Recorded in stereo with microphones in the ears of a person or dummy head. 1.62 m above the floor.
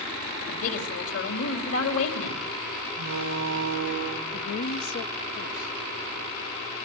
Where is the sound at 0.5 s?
80° left, 4 m.